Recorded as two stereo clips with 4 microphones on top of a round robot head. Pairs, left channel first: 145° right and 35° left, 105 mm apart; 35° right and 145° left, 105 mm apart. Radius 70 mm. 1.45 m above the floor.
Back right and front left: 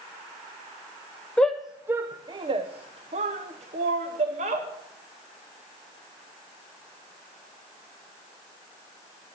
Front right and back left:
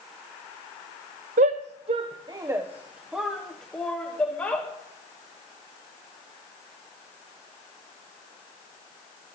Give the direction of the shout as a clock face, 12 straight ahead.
8 o'clock.